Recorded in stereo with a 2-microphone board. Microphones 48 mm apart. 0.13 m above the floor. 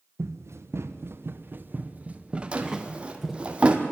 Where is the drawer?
25° right (ahead or behind), 1.6 m.